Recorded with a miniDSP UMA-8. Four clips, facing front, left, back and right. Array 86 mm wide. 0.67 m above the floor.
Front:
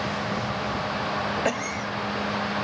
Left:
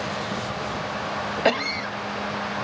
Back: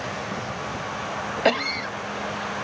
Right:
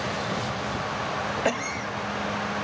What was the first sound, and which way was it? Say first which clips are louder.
A cough: left 4 dB, back 4 dB; 150° left.